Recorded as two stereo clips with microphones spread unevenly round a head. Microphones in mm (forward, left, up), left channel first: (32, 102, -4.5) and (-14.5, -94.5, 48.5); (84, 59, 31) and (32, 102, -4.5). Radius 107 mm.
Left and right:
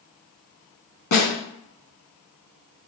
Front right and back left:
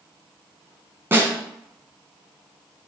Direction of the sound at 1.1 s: 65° left.